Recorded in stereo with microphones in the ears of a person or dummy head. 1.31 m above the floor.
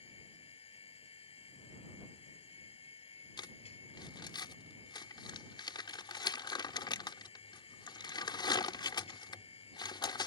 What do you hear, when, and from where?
0.0 s a machine running: 40° left (ahead or behind)
3.4 s crumpling: 30° left (ahead or behind)